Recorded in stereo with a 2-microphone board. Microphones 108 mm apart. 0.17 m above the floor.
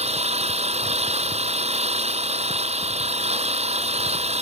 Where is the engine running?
80° right.